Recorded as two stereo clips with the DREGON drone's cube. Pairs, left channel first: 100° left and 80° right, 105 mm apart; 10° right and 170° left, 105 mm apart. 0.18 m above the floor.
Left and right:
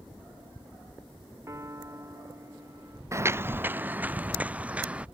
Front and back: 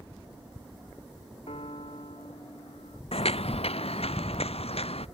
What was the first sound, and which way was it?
A piano, 20° right.